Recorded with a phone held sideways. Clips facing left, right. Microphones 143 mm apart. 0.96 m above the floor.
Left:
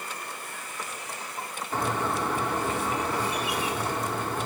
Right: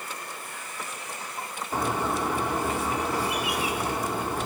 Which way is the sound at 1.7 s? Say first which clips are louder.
Right 1 dB; 10° right (ahead or behind).